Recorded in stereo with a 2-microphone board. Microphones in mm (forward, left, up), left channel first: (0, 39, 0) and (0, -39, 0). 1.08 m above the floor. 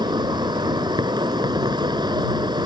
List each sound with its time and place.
0.0 s an insect: 70° right (ahead or behind)